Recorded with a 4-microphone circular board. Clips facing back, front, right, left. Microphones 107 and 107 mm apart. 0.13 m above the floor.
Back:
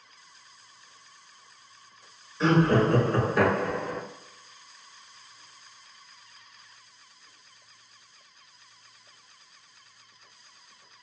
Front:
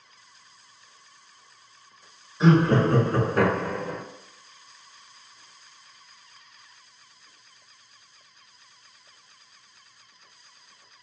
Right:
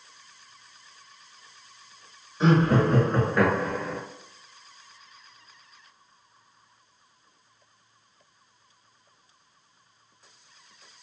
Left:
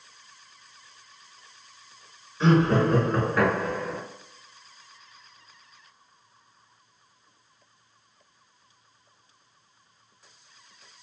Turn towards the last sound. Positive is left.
turn(degrees=15)